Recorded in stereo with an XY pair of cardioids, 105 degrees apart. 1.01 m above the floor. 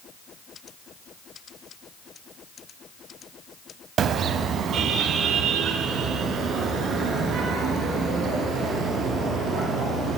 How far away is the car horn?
About 2.5 m.